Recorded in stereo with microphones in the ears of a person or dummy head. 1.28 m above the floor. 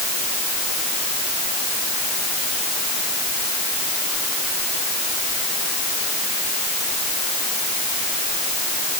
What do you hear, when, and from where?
Only background noise.